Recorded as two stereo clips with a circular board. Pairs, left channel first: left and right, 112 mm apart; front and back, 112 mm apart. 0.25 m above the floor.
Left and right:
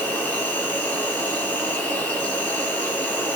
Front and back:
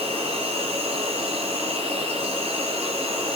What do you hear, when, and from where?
0.0 s an insect: 170° left, 8.5 m